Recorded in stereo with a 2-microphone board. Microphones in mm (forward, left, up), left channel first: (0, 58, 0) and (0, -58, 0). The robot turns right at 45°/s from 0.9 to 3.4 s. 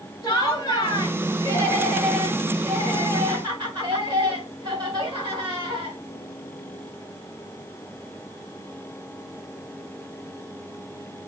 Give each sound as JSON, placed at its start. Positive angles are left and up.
{"t": 0.2, "sound": "laughter", "azimuth_deg": 130, "distance_m": 2.0}